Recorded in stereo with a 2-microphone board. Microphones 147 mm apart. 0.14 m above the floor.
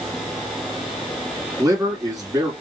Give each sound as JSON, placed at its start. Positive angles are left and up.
{"t": 1.6, "sound": "a man speaking", "side_deg": -25, "distance_m": 2.0}